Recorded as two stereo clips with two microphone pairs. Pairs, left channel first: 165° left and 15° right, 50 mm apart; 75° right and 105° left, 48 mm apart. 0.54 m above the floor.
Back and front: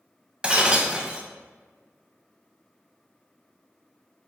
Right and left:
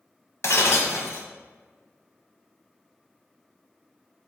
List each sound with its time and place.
0.4 s breaking glass: 80° right, 0.7 m